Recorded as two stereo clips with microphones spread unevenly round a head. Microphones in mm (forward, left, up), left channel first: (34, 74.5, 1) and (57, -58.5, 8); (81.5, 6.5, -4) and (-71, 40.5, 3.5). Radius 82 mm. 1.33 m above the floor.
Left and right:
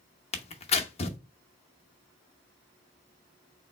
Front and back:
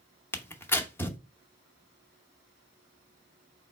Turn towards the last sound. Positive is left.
turn(degrees=65)